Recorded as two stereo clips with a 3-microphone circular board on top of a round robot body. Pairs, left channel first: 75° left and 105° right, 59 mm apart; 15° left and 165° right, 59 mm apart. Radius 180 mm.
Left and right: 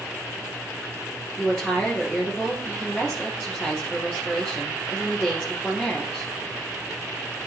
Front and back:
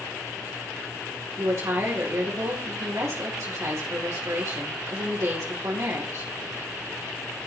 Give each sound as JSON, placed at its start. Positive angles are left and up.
{"t": 1.4, "sound": "a woman speaking", "azimuth_deg": 155, "distance_m": 3.0}